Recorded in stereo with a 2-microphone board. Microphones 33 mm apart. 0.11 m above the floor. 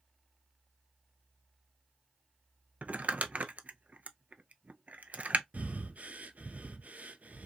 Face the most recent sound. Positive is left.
turn(degrees=-55)  # may be behind; listen again after turning